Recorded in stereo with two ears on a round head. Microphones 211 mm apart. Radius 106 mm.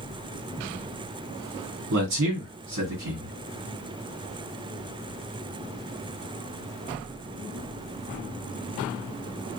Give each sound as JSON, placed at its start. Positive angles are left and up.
{"t": 1.9, "sound": "a man speaking", "side_deg": -55, "distance_m": 1.6}